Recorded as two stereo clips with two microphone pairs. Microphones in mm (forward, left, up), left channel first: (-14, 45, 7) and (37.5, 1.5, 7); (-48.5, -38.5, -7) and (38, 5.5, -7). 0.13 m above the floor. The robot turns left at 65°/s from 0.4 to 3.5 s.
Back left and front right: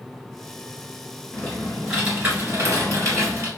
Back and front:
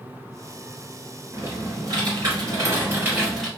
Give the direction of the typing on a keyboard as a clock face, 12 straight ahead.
9 o'clock.